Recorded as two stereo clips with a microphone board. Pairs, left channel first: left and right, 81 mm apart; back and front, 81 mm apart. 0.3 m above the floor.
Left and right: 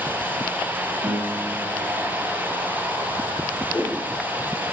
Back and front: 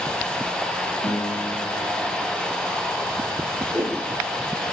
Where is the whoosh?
55° left, 5 m.